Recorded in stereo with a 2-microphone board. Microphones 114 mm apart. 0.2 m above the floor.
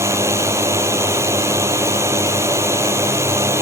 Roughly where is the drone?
Right.